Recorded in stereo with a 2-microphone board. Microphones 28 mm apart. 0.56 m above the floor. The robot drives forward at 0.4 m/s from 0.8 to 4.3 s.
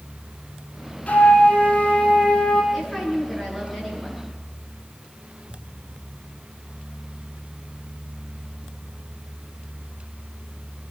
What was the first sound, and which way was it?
A flute, 50° left (ahead or behind).